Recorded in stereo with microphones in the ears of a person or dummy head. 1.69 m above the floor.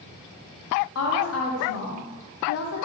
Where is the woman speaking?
70° left (ahead or behind), 0.8 m.